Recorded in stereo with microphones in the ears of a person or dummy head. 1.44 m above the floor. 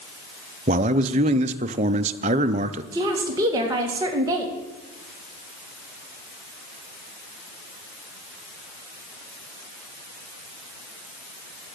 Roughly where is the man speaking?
Right.